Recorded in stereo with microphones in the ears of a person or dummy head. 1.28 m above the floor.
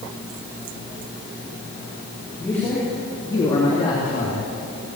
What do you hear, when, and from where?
2.4 s a man speaking: 5° left (ahead or behind), 3.5 m; by 4.5 s 35° left (ahead or behind), 2.5 m